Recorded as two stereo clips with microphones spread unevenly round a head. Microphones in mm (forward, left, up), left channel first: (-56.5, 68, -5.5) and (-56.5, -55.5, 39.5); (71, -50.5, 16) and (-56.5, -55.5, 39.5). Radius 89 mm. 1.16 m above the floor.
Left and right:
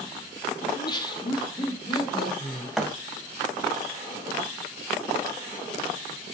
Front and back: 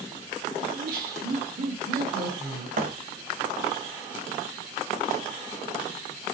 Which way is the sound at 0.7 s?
145° left.